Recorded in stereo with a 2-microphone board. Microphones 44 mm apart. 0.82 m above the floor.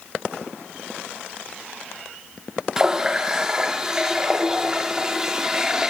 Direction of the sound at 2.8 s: 15° right (ahead or behind).